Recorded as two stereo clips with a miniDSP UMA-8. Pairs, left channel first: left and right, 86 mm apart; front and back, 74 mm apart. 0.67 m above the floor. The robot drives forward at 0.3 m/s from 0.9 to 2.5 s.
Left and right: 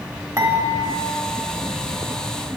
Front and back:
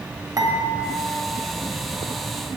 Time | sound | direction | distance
0.4 | dishes clattering | 145° right | 2 m